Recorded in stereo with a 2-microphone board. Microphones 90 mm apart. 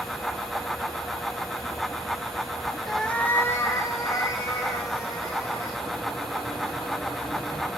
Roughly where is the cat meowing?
Centre.